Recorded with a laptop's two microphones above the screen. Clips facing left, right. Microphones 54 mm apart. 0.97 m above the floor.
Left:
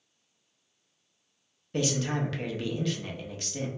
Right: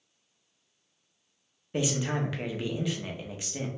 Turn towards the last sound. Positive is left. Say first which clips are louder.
# even
turn(degrees=-15)  # may be behind; listen again after turning